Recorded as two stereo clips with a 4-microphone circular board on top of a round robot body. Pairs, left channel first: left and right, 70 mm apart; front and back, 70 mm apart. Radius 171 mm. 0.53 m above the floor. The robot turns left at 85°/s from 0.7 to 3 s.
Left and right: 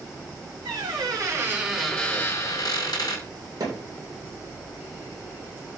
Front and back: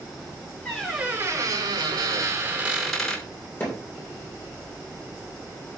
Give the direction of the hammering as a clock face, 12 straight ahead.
2 o'clock.